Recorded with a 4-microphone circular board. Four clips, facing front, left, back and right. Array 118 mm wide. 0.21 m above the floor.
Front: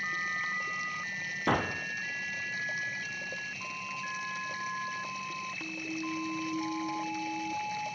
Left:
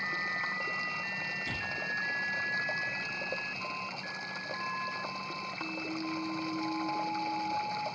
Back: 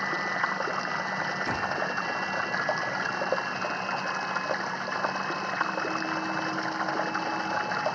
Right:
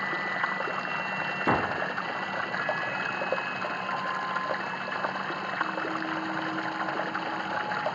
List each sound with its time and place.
0.0 s running water: 150° right
1.5 s a gunshot: 70° right